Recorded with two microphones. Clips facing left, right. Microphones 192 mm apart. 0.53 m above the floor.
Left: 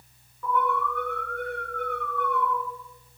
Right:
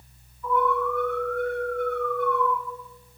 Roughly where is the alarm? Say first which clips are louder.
Right 3 dB; left.